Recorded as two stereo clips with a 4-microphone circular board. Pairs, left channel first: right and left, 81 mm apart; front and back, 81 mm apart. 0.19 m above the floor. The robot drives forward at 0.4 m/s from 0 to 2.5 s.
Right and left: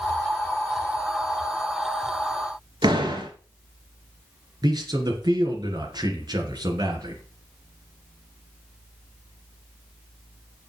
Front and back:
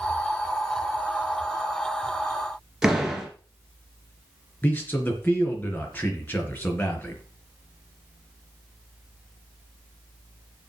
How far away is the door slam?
About 1.9 m.